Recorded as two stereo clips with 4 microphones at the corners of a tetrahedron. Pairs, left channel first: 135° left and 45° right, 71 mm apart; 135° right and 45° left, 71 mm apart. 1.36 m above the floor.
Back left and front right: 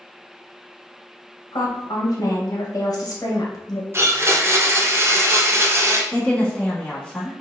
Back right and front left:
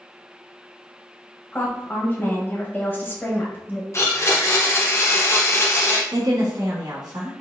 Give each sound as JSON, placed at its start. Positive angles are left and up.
{"t": 1.5, "sound": "a woman speaking", "azimuth_deg": 165, "distance_m": 1.1}
{"t": 3.9, "sound": "a blender", "azimuth_deg": -95, "distance_m": 0.6}
{"t": 6.1, "sound": "a woman speaking", "azimuth_deg": 60, "distance_m": 1.3}